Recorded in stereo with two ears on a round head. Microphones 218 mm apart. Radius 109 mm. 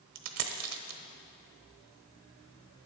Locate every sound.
0.1 s a dropped coin: 70° right (ahead or behind), 1.0 m